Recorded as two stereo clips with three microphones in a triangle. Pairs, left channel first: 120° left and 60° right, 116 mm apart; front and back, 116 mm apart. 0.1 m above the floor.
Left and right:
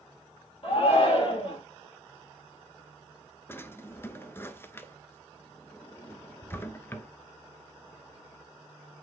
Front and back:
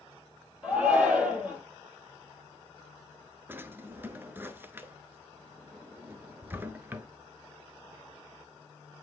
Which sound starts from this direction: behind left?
A drawer, at 3.5 s.